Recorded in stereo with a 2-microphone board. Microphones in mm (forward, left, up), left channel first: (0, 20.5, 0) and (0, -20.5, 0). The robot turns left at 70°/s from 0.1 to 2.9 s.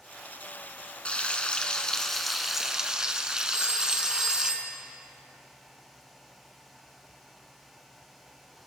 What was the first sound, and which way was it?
Frying, 30° left (ahead or behind).